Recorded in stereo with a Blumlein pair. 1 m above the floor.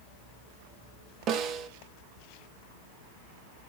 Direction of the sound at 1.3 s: 35° right.